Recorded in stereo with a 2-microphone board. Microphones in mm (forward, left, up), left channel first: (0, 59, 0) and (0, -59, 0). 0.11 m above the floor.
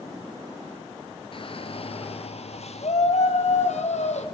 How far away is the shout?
About 1.7 m.